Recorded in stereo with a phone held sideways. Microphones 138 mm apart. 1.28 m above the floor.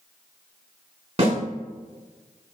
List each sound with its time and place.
1.2 s a snare drum: 45° right (ahead or behind), 5 m